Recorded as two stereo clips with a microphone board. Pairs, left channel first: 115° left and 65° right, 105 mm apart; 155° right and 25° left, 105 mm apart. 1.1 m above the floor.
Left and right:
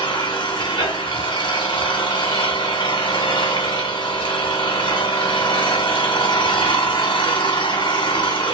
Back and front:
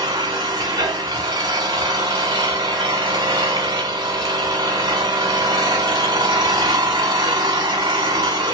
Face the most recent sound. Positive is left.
turn(degrees=70)